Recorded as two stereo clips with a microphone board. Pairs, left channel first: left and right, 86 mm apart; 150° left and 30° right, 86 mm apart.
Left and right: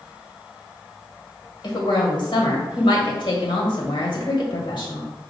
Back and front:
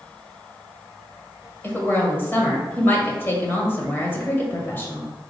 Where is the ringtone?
No ringtone in this recording.